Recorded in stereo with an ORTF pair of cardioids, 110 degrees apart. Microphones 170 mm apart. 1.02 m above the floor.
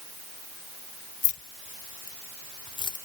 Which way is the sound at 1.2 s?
55° left.